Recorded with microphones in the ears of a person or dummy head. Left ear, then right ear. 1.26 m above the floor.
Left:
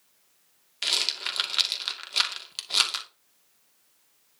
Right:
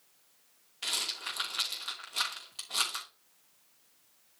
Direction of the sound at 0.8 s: 60° left (ahead or behind).